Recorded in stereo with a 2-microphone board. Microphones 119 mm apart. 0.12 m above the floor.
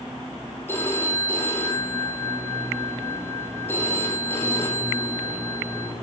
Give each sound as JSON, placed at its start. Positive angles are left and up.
{"t": 0.7, "sound": "a phone ringing", "side_deg": 20, "distance_m": 3.5}